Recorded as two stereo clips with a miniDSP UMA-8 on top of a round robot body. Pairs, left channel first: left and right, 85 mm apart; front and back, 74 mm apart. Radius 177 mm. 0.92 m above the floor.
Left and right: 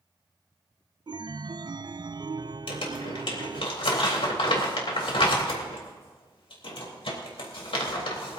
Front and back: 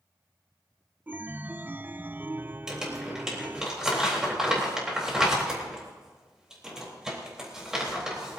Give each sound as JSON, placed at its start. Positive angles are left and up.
{"t": 1.1, "sound": "a chime", "azimuth_deg": -115, "distance_m": 0.5}
{"t": 2.7, "sound": "crumpling", "azimuth_deg": 100, "distance_m": 4.0}